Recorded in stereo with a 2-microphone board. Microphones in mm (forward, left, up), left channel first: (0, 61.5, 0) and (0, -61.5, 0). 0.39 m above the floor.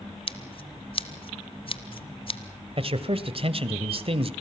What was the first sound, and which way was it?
Scissors, 50° left (ahead or behind).